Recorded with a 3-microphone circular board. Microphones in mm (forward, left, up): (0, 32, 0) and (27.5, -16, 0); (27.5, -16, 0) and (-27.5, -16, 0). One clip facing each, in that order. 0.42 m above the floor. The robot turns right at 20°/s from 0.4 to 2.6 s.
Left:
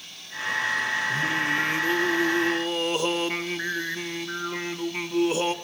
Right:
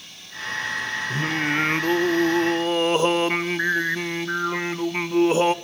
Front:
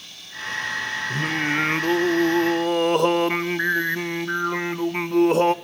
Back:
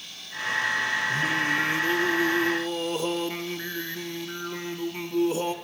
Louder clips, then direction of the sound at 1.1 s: Right 1 dB, front 1 dB; 35° right.